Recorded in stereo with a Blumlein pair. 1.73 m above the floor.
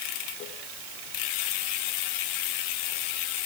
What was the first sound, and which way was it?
Only background noise.